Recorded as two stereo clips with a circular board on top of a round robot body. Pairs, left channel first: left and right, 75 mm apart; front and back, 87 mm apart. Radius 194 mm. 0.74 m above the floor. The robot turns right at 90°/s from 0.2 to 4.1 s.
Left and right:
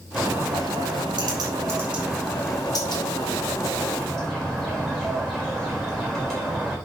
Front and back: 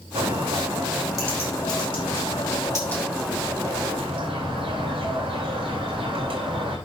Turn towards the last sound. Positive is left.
turn(degrees=175)